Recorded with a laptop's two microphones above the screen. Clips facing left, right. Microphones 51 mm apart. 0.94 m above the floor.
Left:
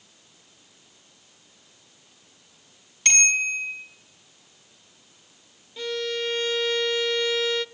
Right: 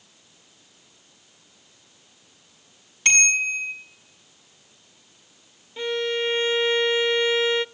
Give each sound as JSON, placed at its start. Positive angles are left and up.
{"t": 3.0, "sound": "a bicycle bell", "side_deg": -5, "distance_m": 6.5}
{"t": 5.8, "sound": "a violin", "side_deg": -25, "distance_m": 0.5}